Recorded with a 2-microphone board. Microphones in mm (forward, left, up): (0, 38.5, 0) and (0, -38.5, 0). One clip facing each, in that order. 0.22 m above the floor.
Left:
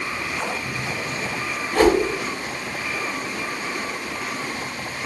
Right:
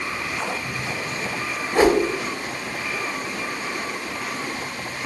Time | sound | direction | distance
1.7 | a whoosh | 15° right (ahead or behind) | 0.6 m